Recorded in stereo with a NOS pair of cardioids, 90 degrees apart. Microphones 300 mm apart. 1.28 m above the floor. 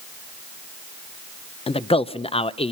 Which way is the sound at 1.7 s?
20° left.